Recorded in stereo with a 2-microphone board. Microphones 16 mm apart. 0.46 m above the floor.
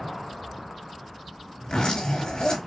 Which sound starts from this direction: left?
A zipper, at 1.6 s.